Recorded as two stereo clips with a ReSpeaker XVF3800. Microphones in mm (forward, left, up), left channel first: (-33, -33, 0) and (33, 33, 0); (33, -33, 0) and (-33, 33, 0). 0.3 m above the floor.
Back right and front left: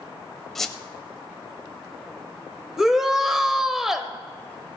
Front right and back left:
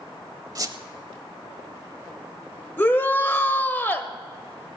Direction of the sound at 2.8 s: 35° right.